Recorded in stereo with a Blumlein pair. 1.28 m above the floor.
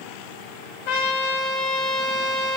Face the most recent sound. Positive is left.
turn(degrees=50)